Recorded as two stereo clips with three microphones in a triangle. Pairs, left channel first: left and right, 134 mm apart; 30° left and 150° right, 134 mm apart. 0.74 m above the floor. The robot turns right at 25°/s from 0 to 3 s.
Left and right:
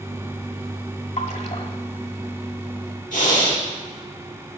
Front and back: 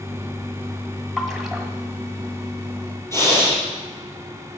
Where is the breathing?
100° left, 4.5 m.